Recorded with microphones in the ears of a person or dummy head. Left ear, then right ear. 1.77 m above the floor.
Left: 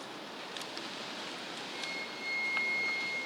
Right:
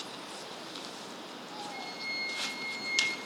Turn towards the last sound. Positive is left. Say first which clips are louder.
# right 3 dB
turn(degrees=-75)  # may be behind; listen again after turning